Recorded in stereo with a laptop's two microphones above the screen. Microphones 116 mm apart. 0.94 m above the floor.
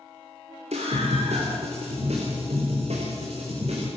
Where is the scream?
75° right (ahead or behind), 3 m; by 3.9 s 70° right (ahead or behind), 4.5 m.